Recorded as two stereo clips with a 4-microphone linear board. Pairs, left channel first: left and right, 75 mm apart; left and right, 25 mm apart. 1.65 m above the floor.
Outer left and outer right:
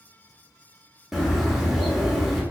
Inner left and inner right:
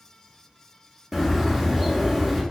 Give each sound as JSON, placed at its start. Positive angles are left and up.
{"t": 1.1, "sound": "a bird", "side_deg": -5, "distance_m": 0.7}